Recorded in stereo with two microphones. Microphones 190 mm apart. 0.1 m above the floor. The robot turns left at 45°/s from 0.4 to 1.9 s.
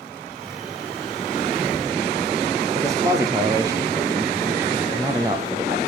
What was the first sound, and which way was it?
A man speaking, 20° right (ahead or behind).